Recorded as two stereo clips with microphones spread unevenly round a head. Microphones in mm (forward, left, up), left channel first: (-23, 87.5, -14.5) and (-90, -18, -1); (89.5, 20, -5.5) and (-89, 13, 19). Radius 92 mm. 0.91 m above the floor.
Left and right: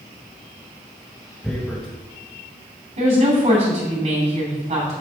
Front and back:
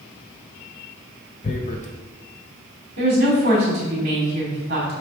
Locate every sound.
1.4 s tearing paper: 30° right, 0.9 m
3.0 s a woman speaking: 135° right, 2.5 m